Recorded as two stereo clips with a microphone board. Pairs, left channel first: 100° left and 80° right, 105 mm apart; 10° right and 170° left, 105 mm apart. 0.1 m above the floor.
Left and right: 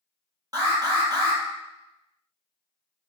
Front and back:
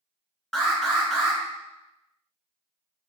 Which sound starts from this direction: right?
An alarm, at 0.5 s.